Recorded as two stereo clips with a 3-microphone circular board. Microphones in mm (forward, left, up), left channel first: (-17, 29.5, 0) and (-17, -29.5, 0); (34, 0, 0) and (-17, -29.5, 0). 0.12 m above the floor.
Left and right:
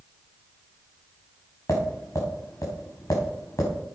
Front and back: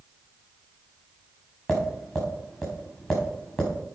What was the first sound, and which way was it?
Tapping, 120° left.